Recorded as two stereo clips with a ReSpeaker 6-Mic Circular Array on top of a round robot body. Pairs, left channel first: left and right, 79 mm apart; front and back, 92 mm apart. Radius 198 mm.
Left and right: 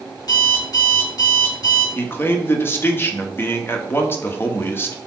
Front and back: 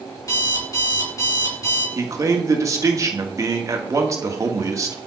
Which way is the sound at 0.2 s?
55° left.